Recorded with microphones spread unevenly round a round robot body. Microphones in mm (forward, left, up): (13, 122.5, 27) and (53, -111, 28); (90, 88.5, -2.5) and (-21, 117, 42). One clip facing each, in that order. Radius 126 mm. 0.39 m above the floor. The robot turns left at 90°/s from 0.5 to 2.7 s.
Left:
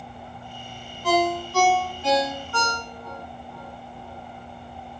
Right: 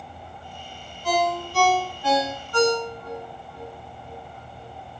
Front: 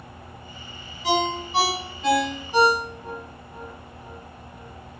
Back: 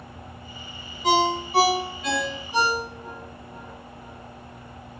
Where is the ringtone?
125° left, 1.3 m; by 5.0 s 25° right, 1.3 m.